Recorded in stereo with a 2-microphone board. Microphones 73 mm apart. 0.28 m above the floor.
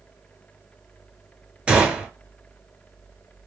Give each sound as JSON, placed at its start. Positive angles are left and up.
{"t": 1.7, "sound": "a gunshot", "side_deg": -15, "distance_m": 0.8}